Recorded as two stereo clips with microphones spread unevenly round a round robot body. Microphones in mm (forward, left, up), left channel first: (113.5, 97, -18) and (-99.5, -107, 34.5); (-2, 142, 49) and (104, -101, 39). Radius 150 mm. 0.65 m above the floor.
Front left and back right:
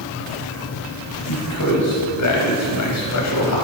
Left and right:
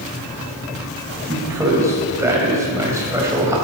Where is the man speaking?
10° left, 4 m.